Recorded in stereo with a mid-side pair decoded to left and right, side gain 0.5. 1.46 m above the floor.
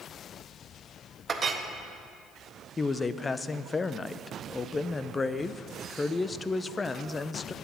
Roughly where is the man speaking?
Ahead left.